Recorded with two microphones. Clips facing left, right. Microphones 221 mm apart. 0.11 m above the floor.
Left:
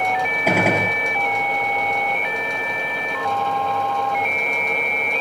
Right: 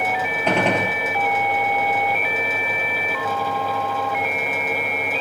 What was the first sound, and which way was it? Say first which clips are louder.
A gunshot: left 1 dB; 10° left (ahead or behind).